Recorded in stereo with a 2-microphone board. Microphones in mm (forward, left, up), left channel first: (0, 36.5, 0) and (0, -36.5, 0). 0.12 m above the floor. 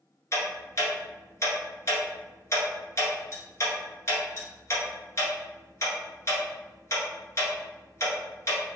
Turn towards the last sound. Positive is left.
turn(degrees=40)  # may be behind; listen again after turning